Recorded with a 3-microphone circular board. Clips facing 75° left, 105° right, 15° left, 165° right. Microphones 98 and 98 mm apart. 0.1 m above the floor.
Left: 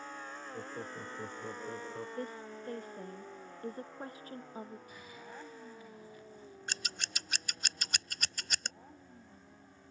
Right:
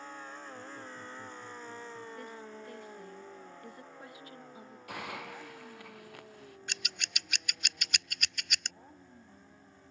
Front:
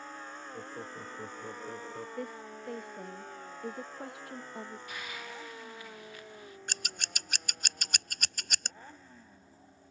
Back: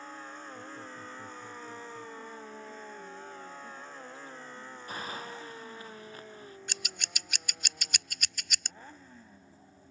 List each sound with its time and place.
0.5 s laughter: 55° left; by 2.1 s 50° left
2.2 s a woman speaking: 25° left
4.9 s a hiss: 115° right
6.7 s scissors: 35° left